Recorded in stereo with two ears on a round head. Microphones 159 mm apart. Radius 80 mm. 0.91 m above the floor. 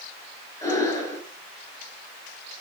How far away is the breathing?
About 6.5 m.